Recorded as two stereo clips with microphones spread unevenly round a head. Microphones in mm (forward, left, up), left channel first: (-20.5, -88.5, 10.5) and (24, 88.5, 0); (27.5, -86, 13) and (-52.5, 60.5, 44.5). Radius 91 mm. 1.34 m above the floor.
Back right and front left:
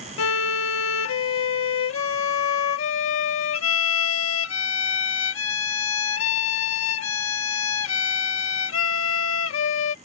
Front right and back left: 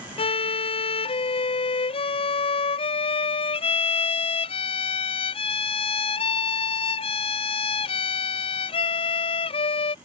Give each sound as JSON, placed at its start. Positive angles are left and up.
{"t": 0.2, "sound": "a violin", "azimuth_deg": -120}